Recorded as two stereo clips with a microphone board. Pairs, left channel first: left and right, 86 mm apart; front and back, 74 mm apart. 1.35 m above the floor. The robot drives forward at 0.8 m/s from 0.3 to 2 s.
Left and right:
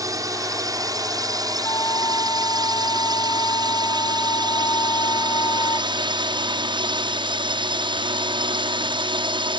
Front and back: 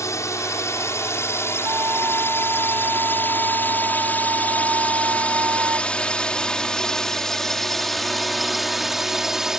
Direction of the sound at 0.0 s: 45° right.